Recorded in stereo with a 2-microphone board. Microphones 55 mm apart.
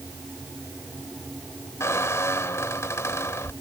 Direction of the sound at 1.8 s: 70° left (ahead or behind).